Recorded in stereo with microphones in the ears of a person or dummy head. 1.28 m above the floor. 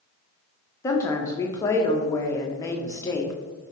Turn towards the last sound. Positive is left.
turn(degrees=15)  # may be behind; listen again after turning